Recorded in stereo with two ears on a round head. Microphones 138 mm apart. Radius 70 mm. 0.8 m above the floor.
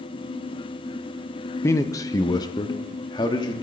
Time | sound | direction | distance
1.6 | a man speaking | 20° left (ahead or behind) | 0.6 m